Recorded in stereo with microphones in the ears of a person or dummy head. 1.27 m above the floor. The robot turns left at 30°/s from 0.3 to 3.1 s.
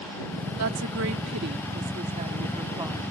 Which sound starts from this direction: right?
A woman speaking, at 0.6 s.